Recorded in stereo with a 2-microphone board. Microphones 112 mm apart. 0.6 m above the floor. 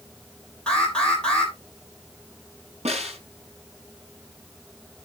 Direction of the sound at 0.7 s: 10° left (ahead or behind).